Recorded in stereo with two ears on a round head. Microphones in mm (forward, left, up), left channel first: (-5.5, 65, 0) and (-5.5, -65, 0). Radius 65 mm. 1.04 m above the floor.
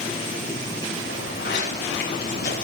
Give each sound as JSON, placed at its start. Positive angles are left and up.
{"t": 1.1, "sound": "footsteps", "side_deg": 70, "distance_m": 5.0}